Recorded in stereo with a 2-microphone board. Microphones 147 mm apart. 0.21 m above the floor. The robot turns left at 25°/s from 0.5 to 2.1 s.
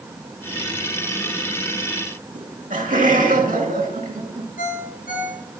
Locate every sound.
2.4 s laughter: 65° right (ahead or behind), 2.5 m
4.6 s a ringtone: 70° left (ahead or behind), 2.5 m